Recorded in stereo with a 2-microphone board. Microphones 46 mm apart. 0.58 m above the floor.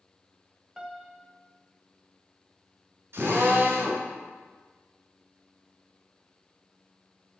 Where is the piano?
15° right (ahead or behind), 0.6 m.